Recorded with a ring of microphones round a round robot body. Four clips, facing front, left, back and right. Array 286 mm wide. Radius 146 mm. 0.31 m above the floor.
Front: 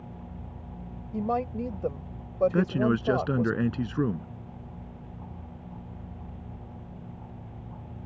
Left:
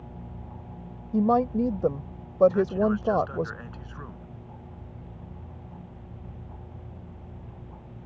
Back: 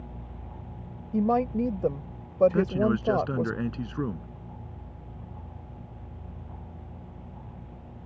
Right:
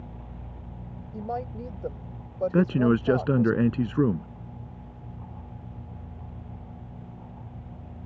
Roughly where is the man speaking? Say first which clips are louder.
Right 2 dB, even; right.